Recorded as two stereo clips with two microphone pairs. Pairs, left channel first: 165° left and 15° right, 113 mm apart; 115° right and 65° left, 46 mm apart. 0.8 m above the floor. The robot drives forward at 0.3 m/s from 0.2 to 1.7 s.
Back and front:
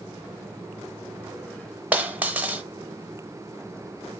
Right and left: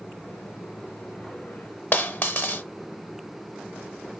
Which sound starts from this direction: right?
A dropped coin, at 1.9 s.